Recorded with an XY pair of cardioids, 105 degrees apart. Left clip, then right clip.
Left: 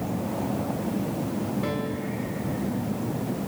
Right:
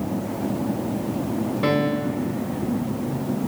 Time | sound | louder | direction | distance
1.6 | a piano | right 8 dB | 60° right | 3.5 m